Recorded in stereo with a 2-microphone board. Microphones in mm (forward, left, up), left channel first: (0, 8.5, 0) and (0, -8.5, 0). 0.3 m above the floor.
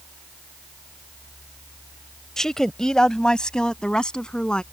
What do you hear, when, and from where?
2.4 s a woman speaking: 35° left (ahead or behind); by 4.6 s 70° left (ahead or behind)